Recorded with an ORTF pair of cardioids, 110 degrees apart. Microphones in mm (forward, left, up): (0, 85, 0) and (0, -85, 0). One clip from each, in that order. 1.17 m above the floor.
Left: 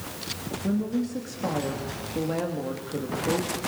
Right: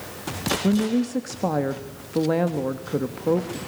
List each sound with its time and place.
0.6 s a woman speaking: 45° right, 1.5 m